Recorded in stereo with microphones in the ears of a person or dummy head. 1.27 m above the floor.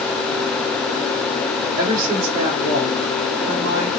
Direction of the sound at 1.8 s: 85° right.